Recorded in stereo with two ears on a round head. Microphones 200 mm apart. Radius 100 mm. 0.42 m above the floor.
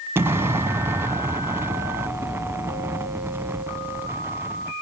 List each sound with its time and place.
0.1 s an explosion: 10° right (ahead or behind), 0.7 m